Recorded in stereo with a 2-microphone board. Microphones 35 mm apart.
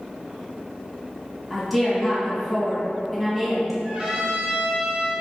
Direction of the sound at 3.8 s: 25° right (ahead or behind).